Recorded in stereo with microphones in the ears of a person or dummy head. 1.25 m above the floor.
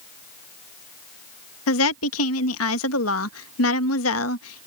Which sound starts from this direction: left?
A woman speaking, at 1.7 s.